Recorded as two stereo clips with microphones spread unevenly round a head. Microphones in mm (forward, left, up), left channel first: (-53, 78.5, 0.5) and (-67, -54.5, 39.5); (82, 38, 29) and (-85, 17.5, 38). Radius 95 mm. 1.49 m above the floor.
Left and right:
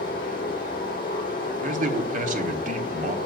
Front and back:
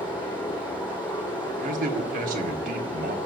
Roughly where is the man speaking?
Behind right.